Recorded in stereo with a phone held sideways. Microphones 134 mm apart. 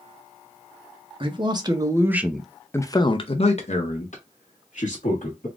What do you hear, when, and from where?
1.2 s a man speaking: 40° right (ahead or behind), 1.0 m; by 5.5 s 70° left (ahead or behind), 1.7 m